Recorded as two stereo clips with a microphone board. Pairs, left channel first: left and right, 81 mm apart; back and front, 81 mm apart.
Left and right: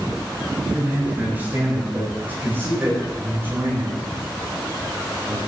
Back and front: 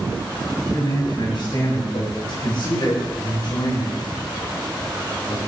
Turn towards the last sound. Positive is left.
turn(degrees=-150)